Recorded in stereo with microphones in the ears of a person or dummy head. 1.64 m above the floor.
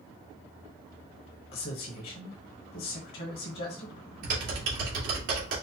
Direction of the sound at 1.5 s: 45° left (ahead or behind).